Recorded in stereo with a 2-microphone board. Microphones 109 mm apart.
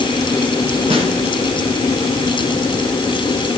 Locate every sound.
0.9 s a snare drum: 60° right (ahead or behind), 7 m